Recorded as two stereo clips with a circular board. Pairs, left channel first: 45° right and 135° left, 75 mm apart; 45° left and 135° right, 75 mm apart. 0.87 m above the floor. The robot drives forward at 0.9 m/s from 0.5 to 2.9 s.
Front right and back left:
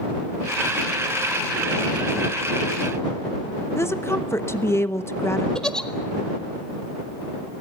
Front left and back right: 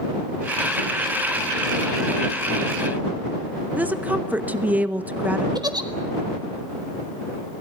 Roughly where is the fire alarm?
No fire alarm in this recording.